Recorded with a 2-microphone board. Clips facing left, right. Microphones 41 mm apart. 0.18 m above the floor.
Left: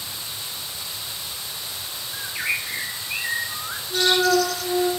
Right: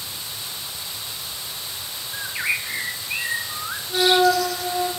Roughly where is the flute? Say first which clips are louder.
Right 2 dB; right.